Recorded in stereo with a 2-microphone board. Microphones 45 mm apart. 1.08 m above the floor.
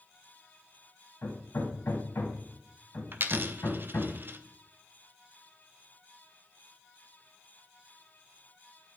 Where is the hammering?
65° left (ahead or behind), 2.5 m.